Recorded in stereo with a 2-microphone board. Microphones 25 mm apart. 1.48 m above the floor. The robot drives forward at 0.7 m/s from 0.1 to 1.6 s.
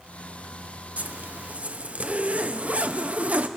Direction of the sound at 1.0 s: 75° right (ahead or behind).